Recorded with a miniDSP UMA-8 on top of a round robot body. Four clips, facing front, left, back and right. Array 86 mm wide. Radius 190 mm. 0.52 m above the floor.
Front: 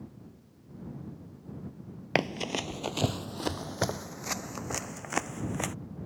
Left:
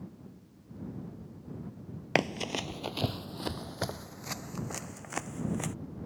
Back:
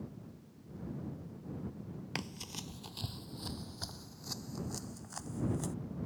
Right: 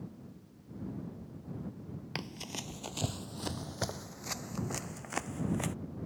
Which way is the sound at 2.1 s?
45° left.